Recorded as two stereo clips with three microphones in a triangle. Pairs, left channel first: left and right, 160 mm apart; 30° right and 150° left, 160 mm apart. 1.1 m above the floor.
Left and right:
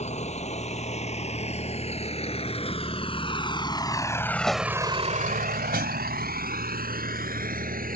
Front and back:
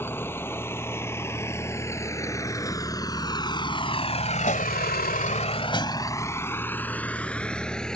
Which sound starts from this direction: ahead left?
A vehicle, at 0.0 s.